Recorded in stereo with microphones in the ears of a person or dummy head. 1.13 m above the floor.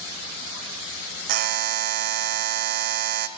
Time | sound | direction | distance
1.3 | a buzzer | 50° right (ahead or behind) | 1.6 m